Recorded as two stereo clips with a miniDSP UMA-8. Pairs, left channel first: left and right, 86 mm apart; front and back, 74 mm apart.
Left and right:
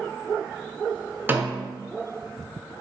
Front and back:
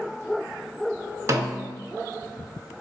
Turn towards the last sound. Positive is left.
turn(degrees=-150)